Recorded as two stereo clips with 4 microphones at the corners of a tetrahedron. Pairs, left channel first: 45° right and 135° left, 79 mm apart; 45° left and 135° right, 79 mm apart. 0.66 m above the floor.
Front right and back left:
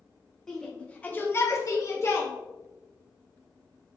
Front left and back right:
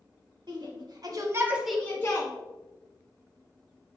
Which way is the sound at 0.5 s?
130° right.